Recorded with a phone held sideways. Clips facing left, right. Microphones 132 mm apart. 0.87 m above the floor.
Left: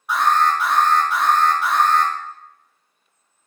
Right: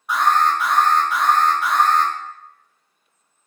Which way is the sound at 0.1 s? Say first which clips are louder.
Even; centre (ahead or behind).